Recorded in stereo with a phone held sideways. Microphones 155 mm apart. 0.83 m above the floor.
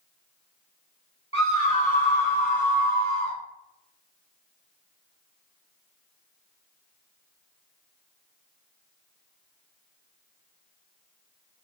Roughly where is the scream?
Left.